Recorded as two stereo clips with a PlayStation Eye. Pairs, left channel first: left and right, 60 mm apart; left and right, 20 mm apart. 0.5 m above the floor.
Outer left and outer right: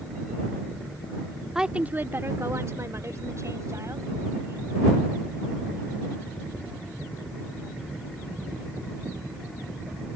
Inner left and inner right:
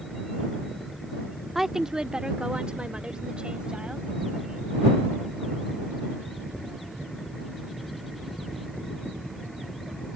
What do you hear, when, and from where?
1.6 s a woman speaking: 10° right (ahead or behind); by 4.7 s 55° right (ahead or behind)